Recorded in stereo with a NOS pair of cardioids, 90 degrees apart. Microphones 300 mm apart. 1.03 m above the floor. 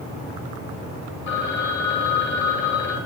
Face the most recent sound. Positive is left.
turn(degrees=70)